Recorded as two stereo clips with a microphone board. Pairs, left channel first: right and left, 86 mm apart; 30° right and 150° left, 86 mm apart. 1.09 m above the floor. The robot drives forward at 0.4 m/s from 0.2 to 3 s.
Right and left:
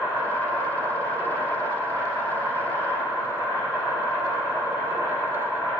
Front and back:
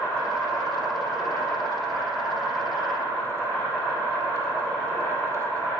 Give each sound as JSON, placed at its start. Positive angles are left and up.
{"t": 0.0, "sound": "an insect", "azimuth_deg": -65, "distance_m": 1.1}